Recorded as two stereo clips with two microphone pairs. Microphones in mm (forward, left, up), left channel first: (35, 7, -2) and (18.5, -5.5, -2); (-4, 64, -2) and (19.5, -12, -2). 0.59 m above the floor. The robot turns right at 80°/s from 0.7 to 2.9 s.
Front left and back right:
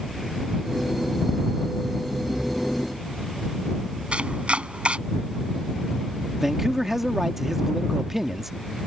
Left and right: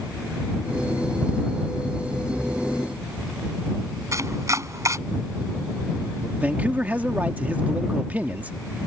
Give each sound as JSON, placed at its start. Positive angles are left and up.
{"t": 4.1, "sound": "chopping", "azimuth_deg": -120}
{"t": 6.4, "sound": "a man speaking", "azimuth_deg": -110}